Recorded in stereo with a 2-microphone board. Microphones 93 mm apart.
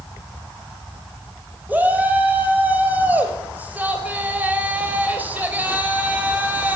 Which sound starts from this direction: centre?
A shout, at 1.7 s.